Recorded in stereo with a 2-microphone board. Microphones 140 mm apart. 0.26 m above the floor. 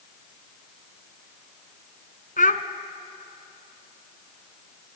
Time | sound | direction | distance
2.4 | a child speaking | 70° left (ahead or behind) | 1.5 m